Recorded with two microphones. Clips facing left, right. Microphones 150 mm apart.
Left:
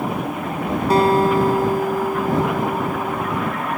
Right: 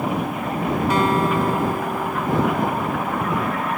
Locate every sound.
0.9 s a guitar: 35° left (ahead or behind)